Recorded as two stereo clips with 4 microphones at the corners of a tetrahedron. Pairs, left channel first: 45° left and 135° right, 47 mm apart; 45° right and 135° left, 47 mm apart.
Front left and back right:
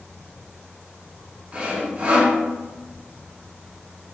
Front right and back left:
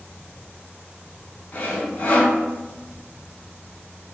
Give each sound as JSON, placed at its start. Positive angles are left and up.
{"t": 1.5, "sound": "sawing", "azimuth_deg": -80, "distance_m": 0.8}